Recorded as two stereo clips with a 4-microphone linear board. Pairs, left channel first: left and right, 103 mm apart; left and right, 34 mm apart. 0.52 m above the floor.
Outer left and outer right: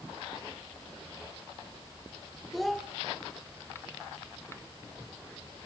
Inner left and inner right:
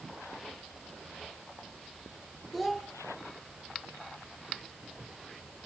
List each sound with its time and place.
2.5 s a child speaking: centre (ahead or behind), 0.8 m